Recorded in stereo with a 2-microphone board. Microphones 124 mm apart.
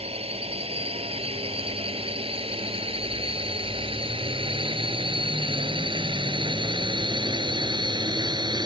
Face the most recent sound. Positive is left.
turn(degrees=-35)  # may be behind; listen again after turning